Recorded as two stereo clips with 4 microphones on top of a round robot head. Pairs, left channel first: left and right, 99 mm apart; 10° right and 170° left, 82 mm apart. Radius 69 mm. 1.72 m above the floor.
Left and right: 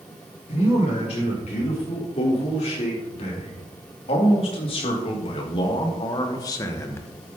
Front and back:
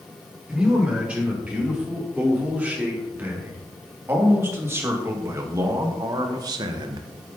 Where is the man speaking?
95° left, 5.5 m; by 7.1 s 155° left, 1.5 m.